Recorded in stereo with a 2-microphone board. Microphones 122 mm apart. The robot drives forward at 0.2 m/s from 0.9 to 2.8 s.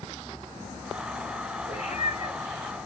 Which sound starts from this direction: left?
A cat meowing, at 1.7 s.